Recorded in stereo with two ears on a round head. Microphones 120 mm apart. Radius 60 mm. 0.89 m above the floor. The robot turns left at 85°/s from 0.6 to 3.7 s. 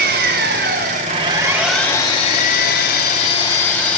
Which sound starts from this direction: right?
An engine running, at 0.0 s.